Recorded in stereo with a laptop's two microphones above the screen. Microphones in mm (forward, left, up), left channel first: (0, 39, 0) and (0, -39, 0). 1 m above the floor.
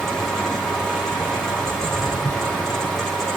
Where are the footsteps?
25° left (ahead or behind), 1.5 m.